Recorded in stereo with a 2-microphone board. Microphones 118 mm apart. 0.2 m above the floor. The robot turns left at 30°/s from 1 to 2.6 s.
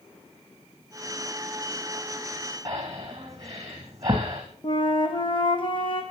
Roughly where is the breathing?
Right.